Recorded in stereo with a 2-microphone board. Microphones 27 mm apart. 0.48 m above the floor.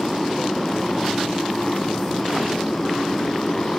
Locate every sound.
0.0 s a motorcycle: 10° left (ahead or behind); by 3.8 s 25° left (ahead or behind)